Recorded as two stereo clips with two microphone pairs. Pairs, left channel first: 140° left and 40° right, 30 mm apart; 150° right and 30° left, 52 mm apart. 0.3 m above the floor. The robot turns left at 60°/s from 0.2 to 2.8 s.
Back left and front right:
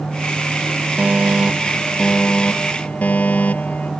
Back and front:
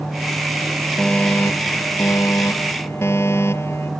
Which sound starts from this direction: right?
A fire alarm, at 1.0 s.